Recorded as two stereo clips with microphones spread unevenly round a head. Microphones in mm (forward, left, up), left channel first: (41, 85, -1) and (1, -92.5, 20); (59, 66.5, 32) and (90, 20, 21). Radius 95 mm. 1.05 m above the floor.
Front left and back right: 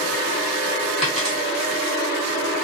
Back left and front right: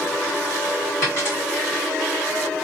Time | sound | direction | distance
1.0 | a dropped coin | 170° left | 1.5 m